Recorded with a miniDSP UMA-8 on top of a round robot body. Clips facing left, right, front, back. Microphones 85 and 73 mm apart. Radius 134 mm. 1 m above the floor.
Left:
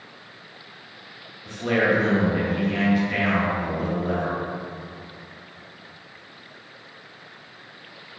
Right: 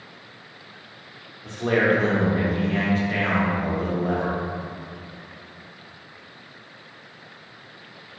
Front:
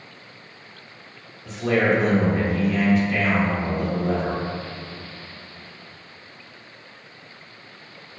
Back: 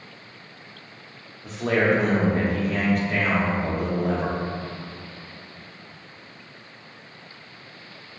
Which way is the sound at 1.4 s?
145° right.